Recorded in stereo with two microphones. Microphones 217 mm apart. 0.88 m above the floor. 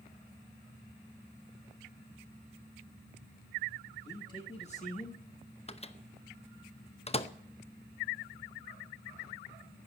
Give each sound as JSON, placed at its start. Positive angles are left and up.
{"t": 4.0, "sound": "a man speaking", "side_deg": 15, "distance_m": 1.7}
{"t": 5.7, "sound": "a microwave", "side_deg": 30, "distance_m": 0.7}